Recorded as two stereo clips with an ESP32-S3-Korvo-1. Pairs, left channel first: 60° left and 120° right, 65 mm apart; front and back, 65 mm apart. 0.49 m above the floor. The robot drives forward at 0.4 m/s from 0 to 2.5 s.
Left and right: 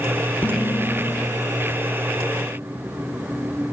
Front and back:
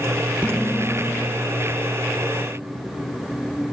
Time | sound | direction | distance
0.4 | dishes clattering | 115° left | 0.8 m